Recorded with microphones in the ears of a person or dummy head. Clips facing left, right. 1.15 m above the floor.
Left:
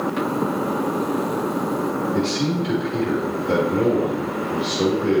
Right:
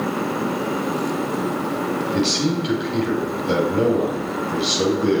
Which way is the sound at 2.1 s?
55° right (ahead or behind).